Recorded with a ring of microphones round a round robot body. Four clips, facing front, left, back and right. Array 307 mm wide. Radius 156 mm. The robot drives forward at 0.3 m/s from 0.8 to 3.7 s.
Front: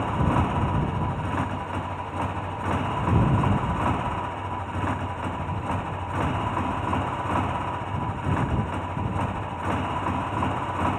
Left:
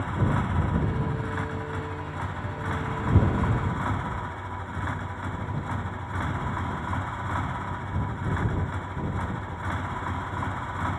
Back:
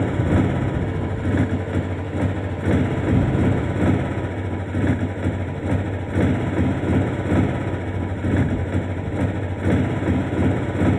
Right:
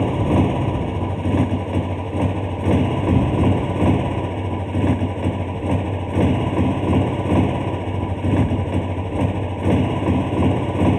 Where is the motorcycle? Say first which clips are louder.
Right 10 dB, back 4 dB; 120° right; by 11.0 s 125° right.